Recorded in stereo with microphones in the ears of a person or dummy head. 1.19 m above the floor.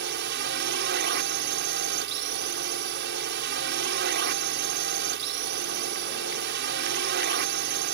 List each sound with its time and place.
0.0 s a drone: 55° right (ahead or behind)